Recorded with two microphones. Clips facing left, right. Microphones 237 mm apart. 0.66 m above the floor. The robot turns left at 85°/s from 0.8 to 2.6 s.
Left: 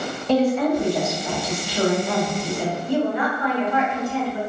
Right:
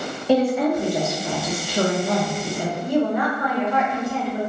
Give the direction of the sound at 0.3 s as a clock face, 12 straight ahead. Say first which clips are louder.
Even; 12 o'clock.